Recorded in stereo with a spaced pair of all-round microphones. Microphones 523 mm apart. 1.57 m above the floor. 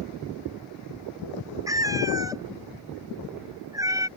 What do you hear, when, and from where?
1.7 s a cat meowing: 5° right (ahead or behind)